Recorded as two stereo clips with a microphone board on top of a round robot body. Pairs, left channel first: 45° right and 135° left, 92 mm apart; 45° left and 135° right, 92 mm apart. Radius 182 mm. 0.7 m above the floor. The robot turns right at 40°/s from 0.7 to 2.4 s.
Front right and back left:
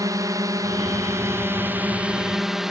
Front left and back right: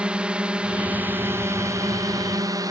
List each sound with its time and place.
0.0 s a drone: 150° left; by 2.7 s 140° right